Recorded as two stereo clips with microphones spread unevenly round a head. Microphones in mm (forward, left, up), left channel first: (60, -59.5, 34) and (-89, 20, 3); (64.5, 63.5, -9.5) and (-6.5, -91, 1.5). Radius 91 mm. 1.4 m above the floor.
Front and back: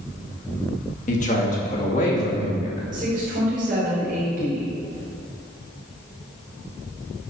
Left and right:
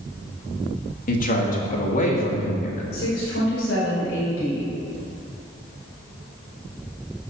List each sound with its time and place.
1.1 s a man speaking: 25° left, 2.5 m; by 2.8 s 20° left, 3.5 m
2.9 s a woman speaking: 105° left, 5.5 m